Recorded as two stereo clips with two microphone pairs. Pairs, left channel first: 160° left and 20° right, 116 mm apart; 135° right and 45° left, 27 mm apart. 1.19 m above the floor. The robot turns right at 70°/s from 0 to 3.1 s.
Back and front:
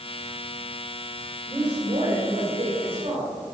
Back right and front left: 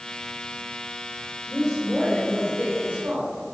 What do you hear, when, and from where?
1.5 s a woman speaking: 75° right, 4 m; by 3.5 s 35° left, 4 m